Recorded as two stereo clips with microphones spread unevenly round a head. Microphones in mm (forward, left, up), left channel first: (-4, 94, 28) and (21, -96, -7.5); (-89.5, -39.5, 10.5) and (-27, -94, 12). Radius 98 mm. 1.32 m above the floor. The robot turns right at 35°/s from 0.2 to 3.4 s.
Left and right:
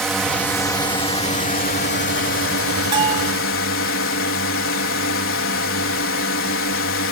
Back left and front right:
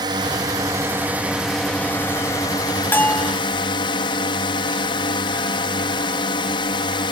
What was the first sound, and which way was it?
A drone, 5° left.